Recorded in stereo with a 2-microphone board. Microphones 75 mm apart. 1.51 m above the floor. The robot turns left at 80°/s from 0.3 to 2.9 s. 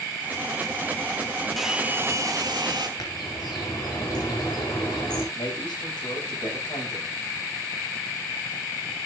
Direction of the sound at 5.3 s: 80° left.